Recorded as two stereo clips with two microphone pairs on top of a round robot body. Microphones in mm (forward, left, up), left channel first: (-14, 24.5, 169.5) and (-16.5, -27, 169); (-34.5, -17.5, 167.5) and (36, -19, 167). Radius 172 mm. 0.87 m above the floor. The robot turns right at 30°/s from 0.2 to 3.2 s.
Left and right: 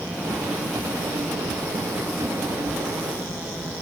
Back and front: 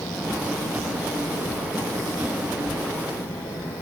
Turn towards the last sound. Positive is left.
No sound to turn to.